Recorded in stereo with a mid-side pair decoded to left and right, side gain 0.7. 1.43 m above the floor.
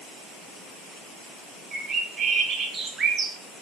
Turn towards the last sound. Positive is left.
turn(degrees=-30)